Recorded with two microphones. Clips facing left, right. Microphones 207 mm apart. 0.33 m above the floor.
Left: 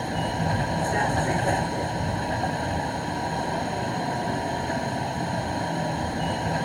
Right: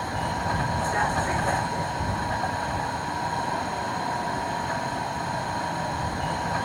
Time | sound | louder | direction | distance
0.0 | a vehicle | left 3 dB | 25° left (ahead or behind) | ?